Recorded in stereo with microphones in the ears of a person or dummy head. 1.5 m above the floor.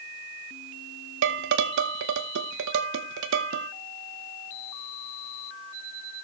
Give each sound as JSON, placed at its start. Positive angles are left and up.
{"t": 1.2, "sound": "dishes clattering", "side_deg": -60, "distance_m": 1.0}